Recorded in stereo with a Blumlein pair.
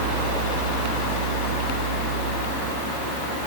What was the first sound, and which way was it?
A fan, 20° right.